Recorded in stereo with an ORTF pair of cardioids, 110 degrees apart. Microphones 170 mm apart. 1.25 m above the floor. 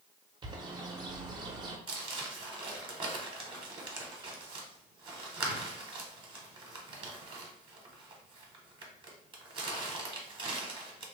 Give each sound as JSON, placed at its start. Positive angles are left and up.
{"t": 0.4, "sound": "a bird", "azimuth_deg": -30, "distance_m": 0.7}
{"t": 1.9, "sound": "crumpling", "azimuth_deg": -30, "distance_m": 0.9}